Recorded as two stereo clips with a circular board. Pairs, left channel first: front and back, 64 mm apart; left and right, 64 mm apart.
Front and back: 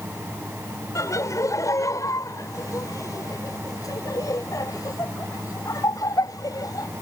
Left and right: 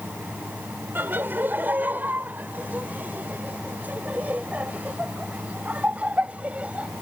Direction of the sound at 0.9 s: 30° right.